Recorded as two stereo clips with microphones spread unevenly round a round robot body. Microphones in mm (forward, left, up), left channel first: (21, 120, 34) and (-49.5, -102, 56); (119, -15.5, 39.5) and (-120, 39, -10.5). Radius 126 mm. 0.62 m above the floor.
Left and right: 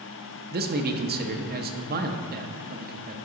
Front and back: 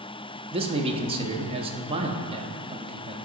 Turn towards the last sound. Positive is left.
turn(degrees=-145)